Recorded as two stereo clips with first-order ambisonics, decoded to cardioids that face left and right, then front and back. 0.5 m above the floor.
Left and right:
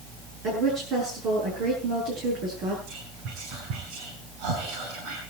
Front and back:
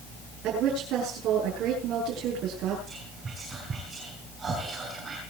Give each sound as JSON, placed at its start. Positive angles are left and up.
{"t": 0.4, "sound": "a woman speaking", "azimuth_deg": -135, "distance_m": 8.5}
{"t": 2.9, "sound": "whispering", "azimuth_deg": -110, "distance_m": 6.0}